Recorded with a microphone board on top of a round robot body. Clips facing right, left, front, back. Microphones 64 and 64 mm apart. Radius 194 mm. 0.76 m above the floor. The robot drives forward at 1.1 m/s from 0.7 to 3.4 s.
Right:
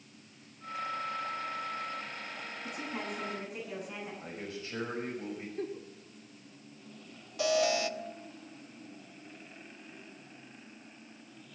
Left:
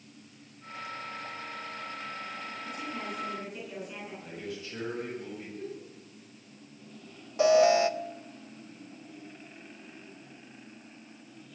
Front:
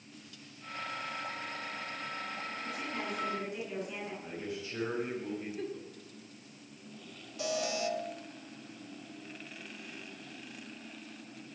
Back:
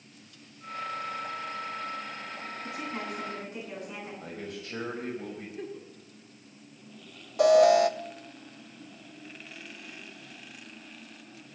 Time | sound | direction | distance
2.6 | a woman speaking | 115° right | 9 m
4.2 | a man speaking | 145° right | 6.5 m
5.6 | a giggle | 95° right | 1.6 m
7.4 | an alarm | 150° left | 0.7 m